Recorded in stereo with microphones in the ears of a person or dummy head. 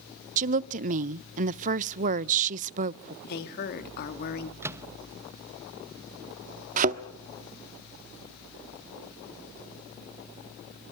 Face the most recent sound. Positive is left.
turn(degrees=-45)  # may be behind; listen again after turning